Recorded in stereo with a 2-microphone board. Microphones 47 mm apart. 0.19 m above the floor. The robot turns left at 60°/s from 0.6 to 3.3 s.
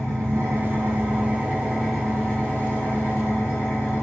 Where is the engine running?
100° right, 1.6 m; by 4.0 s 100° left, 1.6 m.